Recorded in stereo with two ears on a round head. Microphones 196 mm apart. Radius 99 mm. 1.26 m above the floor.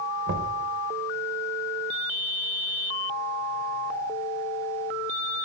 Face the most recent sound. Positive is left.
turn(degrees=-55)  # may be behind; listen again after turning